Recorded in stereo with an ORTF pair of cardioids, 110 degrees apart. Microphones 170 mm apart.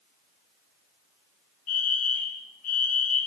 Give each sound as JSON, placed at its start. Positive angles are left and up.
{"t": 1.7, "sound": "a fire alarm", "azimuth_deg": 55, "distance_m": 3.5}